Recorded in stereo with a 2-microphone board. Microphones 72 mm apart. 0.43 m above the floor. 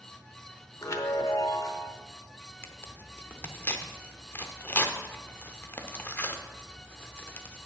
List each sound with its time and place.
0.8 s a chime: 45° left (ahead or behind), 0.8 m
2.6 s tearing paper: 25° left (ahead or behind), 0.7 m